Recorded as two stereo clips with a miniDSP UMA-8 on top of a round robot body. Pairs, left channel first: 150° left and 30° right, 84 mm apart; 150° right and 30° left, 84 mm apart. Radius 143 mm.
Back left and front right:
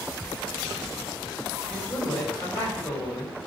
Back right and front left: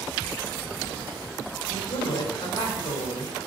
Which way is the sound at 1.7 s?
135° right.